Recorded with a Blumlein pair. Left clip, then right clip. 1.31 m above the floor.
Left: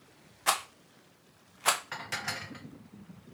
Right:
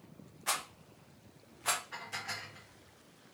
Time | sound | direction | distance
0.5 | a rattle | 25° left | 0.8 m
1.9 | dishes clattering | 40° left | 0.8 m